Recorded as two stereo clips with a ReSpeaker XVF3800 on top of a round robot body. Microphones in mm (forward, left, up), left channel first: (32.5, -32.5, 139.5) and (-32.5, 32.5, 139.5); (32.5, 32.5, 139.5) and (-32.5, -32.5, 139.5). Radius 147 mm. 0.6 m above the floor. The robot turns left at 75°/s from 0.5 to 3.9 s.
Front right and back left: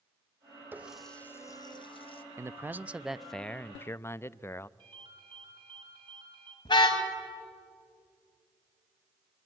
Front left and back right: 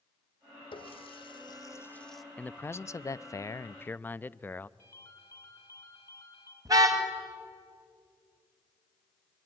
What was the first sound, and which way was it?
A running tap, 65° left.